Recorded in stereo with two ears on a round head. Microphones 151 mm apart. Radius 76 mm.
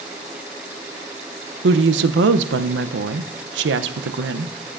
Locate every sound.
1.6 s a woman speaking: 75° right (ahead or behind), 0.6 m